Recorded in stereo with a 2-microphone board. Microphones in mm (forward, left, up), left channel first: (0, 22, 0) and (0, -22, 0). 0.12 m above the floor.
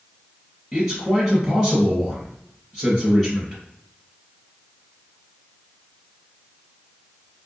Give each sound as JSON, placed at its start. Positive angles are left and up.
{"t": 0.7, "sound": "a man speaking", "side_deg": 10, "distance_m": 1.2}